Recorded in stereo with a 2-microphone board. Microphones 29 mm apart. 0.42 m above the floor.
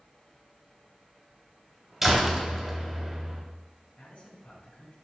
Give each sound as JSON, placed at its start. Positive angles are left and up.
{"t": 2.0, "sound": "a door slam", "side_deg": -10, "distance_m": 1.9}
{"t": 4.0, "sound": "a man speaking", "side_deg": 55, "distance_m": 3.0}